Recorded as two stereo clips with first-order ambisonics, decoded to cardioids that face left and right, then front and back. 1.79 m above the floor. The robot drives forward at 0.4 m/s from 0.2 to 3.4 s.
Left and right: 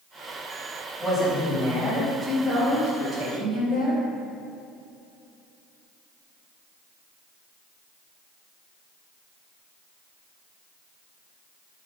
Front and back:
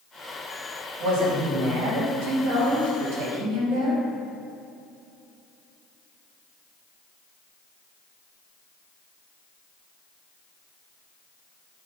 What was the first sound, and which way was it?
A woman speaking, 175° left.